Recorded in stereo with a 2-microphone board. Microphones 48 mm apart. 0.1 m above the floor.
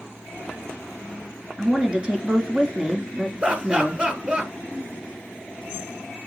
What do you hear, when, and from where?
1.6 s a woman speaking: 20° right (ahead or behind), 1.3 m
3.4 s laughter: 30° right (ahead or behind), 1.7 m